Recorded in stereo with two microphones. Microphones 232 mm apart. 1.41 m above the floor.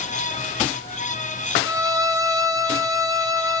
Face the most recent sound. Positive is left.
turn(degrees=-15)  # may be behind; listen again after turning